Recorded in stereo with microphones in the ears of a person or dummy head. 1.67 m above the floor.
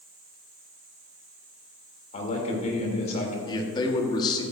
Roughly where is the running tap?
I don't hear a running tap.